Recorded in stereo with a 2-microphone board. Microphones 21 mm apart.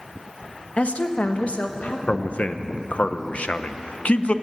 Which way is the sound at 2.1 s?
65° left (ahead or behind).